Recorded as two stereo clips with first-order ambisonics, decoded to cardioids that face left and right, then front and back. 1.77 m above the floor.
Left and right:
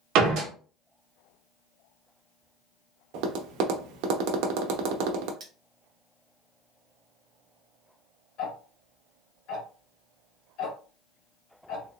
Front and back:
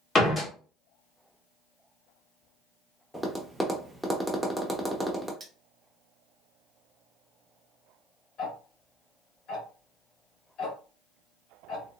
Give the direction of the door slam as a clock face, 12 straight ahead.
2 o'clock.